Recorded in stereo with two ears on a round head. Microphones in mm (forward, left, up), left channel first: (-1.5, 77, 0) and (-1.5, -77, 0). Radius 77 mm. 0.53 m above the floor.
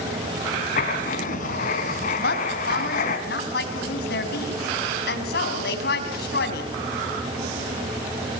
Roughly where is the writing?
Left.